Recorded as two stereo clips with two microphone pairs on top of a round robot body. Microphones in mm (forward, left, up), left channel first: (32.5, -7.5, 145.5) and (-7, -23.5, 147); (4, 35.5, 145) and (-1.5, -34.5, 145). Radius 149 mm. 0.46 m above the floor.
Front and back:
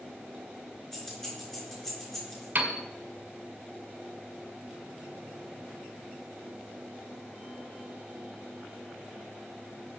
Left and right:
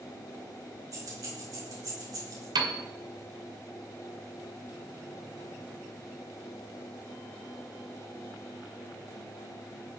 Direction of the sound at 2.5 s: 105° right.